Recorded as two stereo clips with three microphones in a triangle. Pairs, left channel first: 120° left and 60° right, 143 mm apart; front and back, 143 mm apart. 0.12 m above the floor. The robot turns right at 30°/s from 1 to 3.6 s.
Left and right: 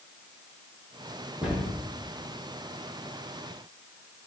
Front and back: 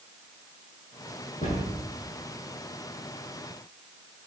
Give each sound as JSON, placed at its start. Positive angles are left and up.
{"t": 1.4, "sound": "a cupboard door", "azimuth_deg": 20, "distance_m": 3.5}